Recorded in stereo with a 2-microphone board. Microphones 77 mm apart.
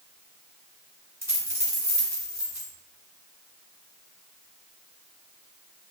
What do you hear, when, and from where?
1.2 s a dropped coin: 35° right (ahead or behind), 1.6 m